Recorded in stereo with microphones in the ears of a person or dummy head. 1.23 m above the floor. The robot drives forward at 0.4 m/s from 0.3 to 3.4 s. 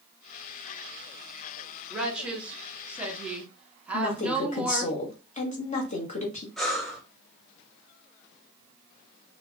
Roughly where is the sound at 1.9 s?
Centre.